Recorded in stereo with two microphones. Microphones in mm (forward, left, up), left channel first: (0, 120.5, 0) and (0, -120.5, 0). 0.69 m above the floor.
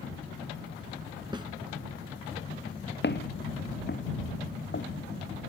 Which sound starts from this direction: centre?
A snare drum, at 1.3 s.